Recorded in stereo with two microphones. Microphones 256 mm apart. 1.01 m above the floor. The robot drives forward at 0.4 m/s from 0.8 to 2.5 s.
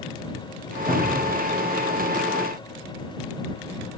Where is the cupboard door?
25° right (ahead or behind), 0.9 m; by 1.4 s 35° right (ahead or behind), 0.8 m.